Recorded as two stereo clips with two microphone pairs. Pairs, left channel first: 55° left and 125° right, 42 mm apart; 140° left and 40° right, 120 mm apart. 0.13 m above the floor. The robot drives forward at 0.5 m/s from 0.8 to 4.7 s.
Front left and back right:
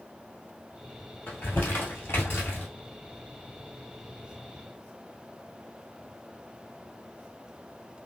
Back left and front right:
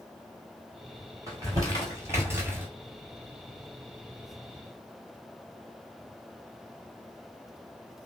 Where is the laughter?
No laughter in this recording.